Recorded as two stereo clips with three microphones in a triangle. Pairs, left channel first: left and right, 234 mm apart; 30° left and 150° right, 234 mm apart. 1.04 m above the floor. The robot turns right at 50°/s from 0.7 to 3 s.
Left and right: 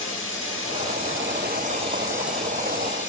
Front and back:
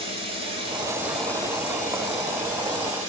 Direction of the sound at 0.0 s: 85° right.